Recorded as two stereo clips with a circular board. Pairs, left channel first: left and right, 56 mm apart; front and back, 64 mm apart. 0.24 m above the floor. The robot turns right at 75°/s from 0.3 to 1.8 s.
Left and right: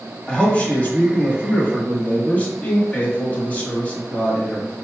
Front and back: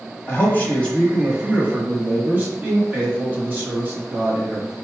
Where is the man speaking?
25° left, 1.2 m; by 4.7 s 135° left, 1.2 m.